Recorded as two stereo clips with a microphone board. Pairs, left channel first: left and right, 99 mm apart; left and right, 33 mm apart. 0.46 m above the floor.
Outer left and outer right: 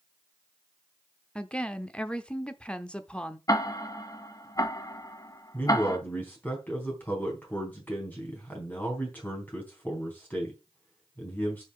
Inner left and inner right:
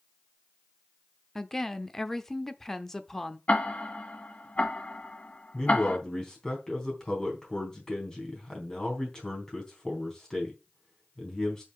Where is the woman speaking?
10° left (ahead or behind), 0.8 m.